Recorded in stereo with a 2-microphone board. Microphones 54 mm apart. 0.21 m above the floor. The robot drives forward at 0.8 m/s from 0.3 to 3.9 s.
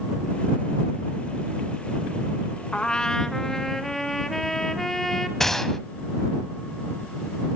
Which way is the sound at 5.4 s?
5° left (ahead or behind).